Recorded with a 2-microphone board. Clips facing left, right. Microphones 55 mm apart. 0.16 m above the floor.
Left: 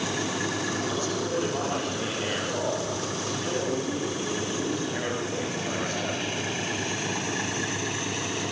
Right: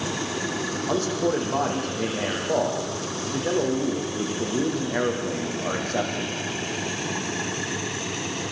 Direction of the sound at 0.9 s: 55° right (ahead or behind).